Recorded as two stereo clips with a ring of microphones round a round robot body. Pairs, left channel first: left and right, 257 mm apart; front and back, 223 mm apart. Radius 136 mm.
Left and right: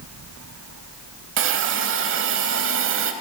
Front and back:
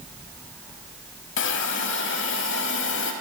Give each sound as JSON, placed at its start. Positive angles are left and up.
{"t": 1.4, "sound": "a hiss", "azimuth_deg": -45, "distance_m": 0.7}